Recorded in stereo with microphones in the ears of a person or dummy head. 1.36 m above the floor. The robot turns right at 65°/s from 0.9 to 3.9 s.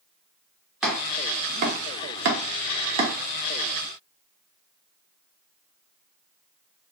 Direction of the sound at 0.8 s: Centre (ahead or behind).